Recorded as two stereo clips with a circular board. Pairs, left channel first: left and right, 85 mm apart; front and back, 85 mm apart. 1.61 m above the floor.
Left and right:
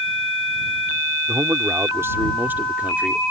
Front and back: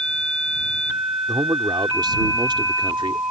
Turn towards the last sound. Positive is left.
turn(degrees=-165)